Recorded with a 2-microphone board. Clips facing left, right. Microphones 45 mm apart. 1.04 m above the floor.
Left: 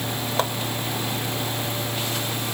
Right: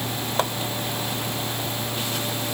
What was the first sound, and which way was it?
Only background noise.